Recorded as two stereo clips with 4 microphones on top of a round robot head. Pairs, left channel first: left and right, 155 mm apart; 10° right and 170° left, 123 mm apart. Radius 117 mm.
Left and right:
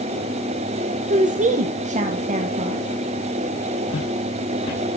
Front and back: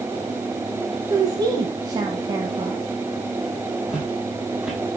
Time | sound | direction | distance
1.1 | a woman speaking | 130° right | 0.8 m
3.9 | footsteps | 85° left | 3 m